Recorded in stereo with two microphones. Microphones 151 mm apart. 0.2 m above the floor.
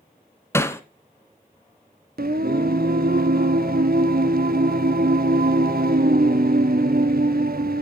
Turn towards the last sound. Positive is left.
turn(degrees=-80)